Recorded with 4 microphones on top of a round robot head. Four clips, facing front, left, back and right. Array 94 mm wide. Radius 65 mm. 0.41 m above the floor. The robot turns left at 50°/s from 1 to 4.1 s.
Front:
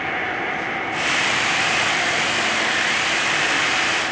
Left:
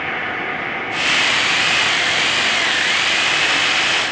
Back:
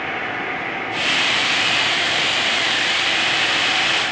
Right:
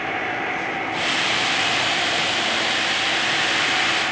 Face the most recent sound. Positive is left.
turn(degrees=-80)